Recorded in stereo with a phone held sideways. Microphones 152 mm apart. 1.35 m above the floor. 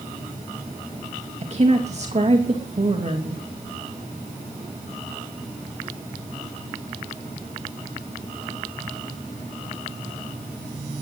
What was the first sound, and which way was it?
A woman speaking, 45° right (ahead or behind).